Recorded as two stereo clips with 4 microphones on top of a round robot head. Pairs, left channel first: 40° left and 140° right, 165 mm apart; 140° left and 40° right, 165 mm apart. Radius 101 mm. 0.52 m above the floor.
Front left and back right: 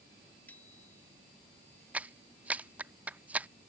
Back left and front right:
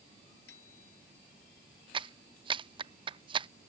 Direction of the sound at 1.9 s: 65° right.